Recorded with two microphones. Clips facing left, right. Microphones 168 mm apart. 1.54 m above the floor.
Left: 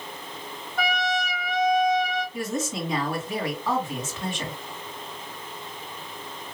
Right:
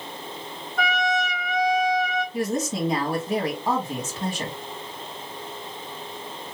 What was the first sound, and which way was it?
A trumpet, centre (ahead or behind).